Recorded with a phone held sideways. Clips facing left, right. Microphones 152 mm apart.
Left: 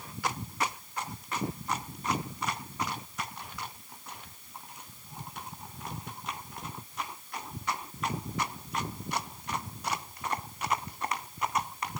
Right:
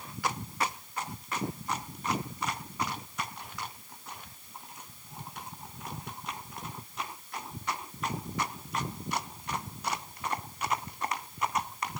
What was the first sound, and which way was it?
Only background noise.